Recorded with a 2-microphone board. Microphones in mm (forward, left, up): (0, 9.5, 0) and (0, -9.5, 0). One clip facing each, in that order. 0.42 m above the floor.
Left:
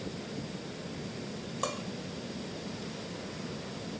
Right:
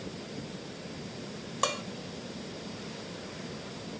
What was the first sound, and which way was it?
Dishes clattering, 35° right (ahead or behind).